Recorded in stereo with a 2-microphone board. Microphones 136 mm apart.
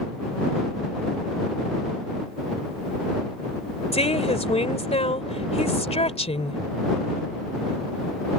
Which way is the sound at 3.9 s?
55° left (ahead or behind).